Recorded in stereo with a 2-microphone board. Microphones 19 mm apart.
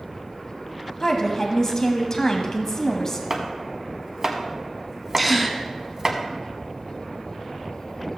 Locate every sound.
1.0 s a woman speaking: 30° left (ahead or behind), 1.2 m
3.3 s chopping: 35° right (ahead or behind), 1.2 m
5.2 s a gasp: centre (ahead or behind), 1.0 m